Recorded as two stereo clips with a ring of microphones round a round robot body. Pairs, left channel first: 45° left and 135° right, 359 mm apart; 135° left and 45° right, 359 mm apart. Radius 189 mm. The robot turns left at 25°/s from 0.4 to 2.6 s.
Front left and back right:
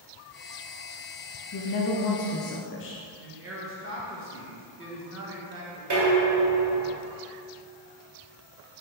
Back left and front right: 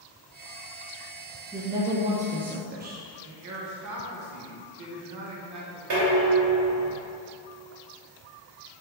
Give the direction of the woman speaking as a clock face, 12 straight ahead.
11 o'clock.